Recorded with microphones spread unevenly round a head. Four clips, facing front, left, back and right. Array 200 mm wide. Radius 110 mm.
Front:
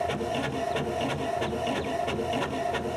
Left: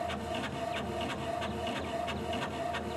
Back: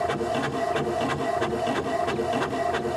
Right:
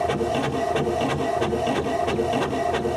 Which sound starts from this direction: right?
A machine running, at 0.0 s.